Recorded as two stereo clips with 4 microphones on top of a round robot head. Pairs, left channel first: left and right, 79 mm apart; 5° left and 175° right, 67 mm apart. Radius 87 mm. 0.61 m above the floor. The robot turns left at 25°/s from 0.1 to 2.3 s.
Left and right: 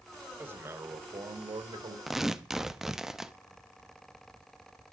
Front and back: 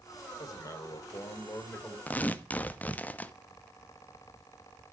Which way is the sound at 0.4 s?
25° right.